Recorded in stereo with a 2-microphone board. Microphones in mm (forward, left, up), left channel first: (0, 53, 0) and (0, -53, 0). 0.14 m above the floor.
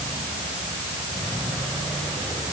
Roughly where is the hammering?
I don't hear hammering.